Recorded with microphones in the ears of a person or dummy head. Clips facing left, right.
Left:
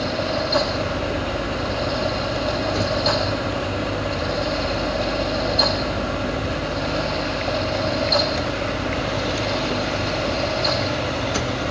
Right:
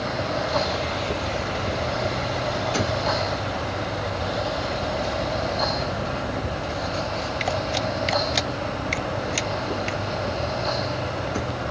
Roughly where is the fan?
Left.